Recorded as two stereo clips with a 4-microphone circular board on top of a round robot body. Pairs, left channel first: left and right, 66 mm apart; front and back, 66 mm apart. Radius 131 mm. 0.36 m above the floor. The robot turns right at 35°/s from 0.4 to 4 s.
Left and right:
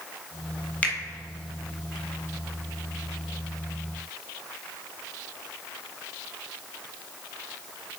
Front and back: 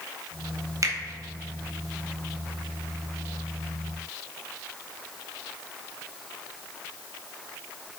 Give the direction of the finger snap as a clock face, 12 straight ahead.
7 o'clock.